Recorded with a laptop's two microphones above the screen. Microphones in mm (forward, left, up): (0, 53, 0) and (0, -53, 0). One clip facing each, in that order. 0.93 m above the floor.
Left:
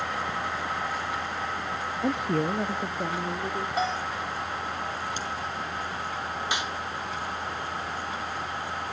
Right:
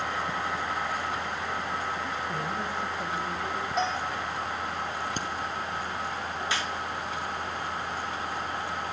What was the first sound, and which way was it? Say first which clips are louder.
A woman speaking: left 6 dB; 70° left (ahead or behind).